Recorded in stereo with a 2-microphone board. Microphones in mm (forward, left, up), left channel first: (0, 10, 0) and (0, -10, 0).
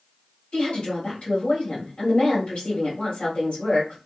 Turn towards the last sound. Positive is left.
turn(degrees=70)  # may be behind; listen again after turning